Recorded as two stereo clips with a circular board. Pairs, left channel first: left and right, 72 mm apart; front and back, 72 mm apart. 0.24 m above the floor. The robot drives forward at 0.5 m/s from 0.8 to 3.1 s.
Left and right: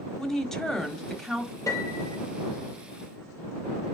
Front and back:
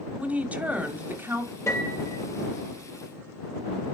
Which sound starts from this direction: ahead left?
A piano, at 1.7 s.